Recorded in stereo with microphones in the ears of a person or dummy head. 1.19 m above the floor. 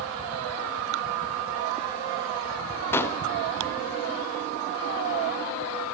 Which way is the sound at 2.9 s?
15° left (ahead or behind).